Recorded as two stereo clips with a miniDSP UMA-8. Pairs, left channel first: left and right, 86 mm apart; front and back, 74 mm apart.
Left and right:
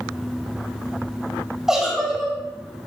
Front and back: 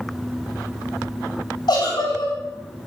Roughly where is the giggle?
Ahead.